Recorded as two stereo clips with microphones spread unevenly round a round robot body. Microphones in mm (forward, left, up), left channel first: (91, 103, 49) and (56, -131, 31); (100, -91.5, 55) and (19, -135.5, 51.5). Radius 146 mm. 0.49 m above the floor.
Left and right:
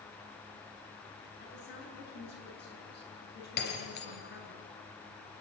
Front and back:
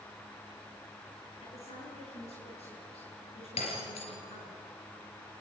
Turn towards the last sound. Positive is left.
turn(degrees=35)